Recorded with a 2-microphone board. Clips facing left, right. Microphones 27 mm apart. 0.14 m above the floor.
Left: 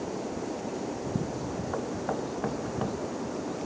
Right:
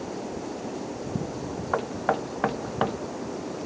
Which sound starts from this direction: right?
Knocking, at 1.7 s.